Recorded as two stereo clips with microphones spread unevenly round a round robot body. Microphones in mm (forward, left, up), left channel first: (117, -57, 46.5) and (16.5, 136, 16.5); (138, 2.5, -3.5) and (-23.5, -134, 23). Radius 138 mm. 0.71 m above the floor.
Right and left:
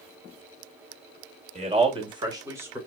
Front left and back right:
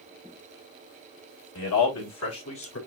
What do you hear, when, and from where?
1.6 s a man speaking: 60° left, 2.5 m; by 2.8 s 40° left, 2.5 m